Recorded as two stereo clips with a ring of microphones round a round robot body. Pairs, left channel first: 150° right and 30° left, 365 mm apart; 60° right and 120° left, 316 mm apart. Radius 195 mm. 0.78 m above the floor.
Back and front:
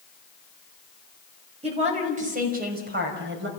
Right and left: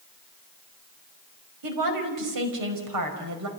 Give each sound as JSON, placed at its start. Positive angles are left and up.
{"t": 1.6, "sound": "a woman speaking", "azimuth_deg": 105, "distance_m": 5.5}